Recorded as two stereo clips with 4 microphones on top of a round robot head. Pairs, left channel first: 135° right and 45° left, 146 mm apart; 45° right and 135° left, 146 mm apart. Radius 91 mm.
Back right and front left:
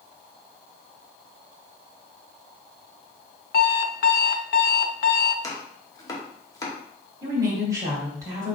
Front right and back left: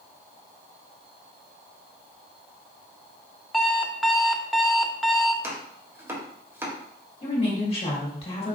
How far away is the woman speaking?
About 1.5 m.